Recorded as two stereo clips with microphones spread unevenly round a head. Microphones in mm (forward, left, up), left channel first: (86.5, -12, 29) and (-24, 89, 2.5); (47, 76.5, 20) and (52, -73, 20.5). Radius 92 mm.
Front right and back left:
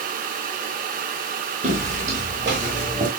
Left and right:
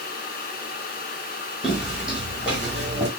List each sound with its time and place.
1.6 s footsteps: 175° right, 1.9 m; by 3.1 s 170° right, 2.5 m